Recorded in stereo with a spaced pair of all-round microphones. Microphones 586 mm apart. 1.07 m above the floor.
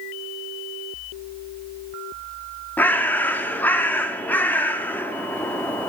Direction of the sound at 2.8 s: 5° left (ahead or behind).